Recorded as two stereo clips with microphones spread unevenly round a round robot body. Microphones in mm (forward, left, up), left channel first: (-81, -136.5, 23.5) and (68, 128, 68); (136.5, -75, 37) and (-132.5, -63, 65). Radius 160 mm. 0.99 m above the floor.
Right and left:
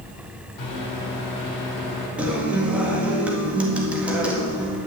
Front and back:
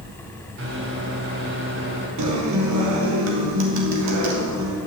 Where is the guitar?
150° left, 1.8 m.